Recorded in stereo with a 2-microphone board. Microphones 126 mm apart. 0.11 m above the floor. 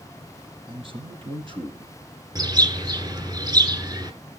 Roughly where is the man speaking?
Right.